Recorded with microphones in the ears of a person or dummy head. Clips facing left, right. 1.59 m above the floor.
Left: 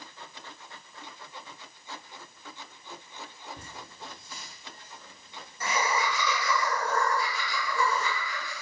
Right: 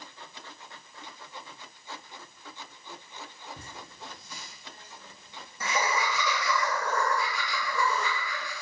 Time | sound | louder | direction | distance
3.6 | laughter | even | 70° right (ahead or behind) | 0.9 m